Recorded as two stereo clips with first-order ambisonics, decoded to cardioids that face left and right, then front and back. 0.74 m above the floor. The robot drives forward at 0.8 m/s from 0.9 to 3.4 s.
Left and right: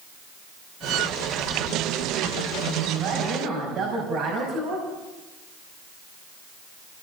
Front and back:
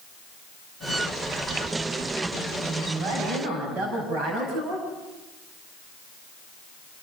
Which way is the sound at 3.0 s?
130° right.